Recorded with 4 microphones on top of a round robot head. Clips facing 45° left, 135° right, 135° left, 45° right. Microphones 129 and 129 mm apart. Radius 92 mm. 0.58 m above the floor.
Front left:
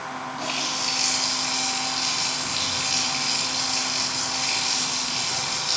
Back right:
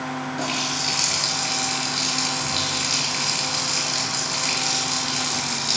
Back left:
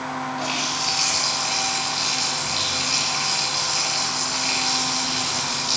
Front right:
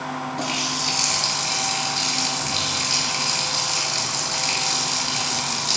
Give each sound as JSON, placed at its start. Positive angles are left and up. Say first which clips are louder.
{"t": 0.4, "sound": "a running tap", "louder": "back right 3 dB, even", "azimuth_deg": -90, "distance_m": 7.5}